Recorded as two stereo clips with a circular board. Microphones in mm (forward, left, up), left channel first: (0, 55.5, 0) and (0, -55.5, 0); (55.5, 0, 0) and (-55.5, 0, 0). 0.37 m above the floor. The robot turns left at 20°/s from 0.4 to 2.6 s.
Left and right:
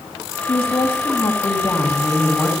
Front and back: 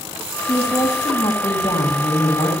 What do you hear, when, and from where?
0.5 s a woman speaking: 60° left, 3 m; by 2.5 s 20° left, 3 m